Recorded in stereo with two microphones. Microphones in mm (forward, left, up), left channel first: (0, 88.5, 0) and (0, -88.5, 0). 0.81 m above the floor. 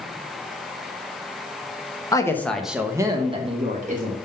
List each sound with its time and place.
2.1 s a woman speaking: 20° left (ahead or behind), 0.7 m; by 4.2 s 50° right (ahead or behind), 1.0 m